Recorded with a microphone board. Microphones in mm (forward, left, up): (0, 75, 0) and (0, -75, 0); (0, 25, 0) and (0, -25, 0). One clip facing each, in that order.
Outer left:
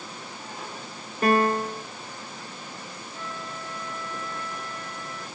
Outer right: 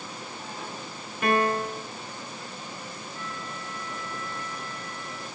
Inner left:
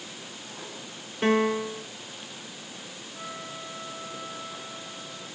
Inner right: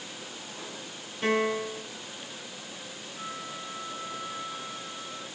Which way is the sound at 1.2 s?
35° left (ahead or behind).